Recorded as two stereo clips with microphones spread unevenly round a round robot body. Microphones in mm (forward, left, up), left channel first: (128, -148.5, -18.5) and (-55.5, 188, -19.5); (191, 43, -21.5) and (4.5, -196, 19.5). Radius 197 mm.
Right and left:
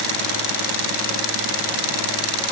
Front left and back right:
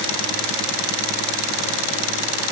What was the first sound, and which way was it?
Only background noise.